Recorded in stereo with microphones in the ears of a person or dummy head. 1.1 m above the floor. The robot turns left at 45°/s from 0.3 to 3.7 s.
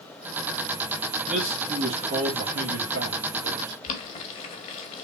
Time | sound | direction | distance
1.3 | a man speaking | 10° right | 1.3 m
3.8 | boiling | 35° left (ahead or behind) | 1.4 m